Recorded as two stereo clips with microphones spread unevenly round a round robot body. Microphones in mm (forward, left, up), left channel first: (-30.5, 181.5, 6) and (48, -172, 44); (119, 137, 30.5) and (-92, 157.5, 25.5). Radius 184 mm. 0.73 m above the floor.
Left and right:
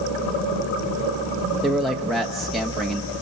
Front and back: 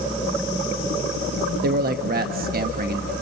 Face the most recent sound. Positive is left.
turn(degrees=-175)